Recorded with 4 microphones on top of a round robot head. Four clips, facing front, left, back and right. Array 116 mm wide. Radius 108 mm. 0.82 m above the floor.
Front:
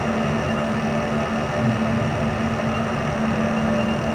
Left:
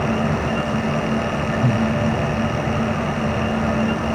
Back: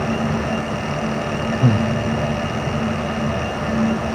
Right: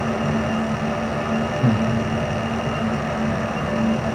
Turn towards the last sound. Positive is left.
turn(degrees=-160)